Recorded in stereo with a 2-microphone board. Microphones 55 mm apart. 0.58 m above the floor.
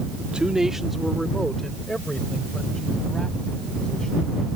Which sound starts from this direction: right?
A man speaking, at 0.2 s.